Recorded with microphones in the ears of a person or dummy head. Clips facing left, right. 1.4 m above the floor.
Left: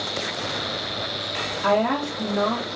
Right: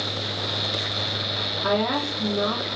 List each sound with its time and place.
1.6 s a woman speaking: 80° left, 0.9 m